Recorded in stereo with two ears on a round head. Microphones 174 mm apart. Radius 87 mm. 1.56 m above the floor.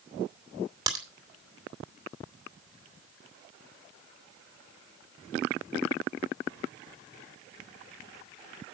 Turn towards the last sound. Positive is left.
turn(degrees=-20)  # may be behind; listen again after turning